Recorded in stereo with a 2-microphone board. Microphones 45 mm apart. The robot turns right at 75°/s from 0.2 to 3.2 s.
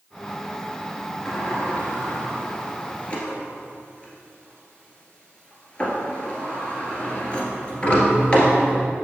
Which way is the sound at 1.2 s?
5° left (ahead or behind).